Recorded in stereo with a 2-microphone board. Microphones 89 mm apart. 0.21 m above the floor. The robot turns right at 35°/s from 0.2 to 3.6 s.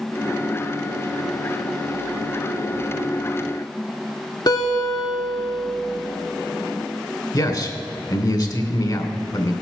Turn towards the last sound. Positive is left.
turn(degrees=50)  # may be behind; listen again after turning